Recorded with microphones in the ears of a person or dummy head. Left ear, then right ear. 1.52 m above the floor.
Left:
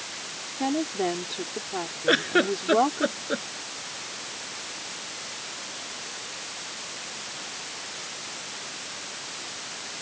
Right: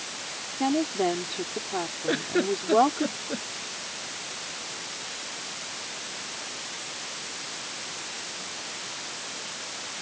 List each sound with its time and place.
0.6 s a woman speaking: 10° right (ahead or behind)
2.1 s a giggle: 50° left (ahead or behind)